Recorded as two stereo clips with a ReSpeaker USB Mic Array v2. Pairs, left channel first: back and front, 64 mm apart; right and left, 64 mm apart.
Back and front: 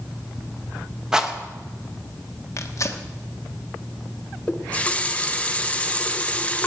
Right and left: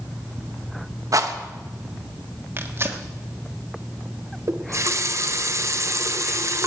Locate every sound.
1.1 s a rattle: 75° left, 1.2 m
2.6 s tearing paper: 140° left, 1.3 m
4.5 s a running tap: 115° left, 0.8 m